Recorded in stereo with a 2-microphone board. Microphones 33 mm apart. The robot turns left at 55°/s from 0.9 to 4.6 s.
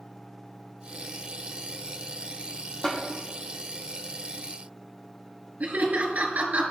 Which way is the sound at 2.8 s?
25° left (ahead or behind).